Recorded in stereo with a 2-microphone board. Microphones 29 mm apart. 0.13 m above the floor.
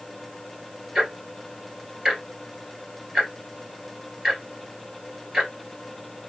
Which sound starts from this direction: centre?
Ticking, at 0.9 s.